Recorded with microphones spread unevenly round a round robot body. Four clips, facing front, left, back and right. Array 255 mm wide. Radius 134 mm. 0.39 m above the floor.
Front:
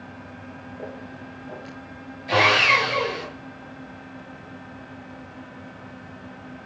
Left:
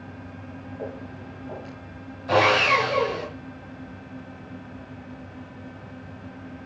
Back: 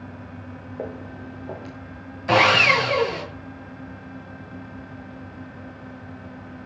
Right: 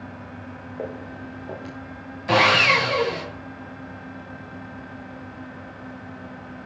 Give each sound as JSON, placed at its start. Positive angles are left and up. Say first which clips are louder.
{"t": 0.8, "sound": "footsteps", "louder": "right 4 dB, back 5 dB", "azimuth_deg": -165, "distance_m": 5.5}
{"t": 2.3, "sound": "sawing", "louder": "right 1 dB, back 2 dB", "azimuth_deg": -150, "distance_m": 7.5}